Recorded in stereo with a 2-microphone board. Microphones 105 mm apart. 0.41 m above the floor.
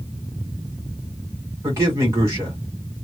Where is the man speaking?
30° right (ahead or behind), 1.7 m.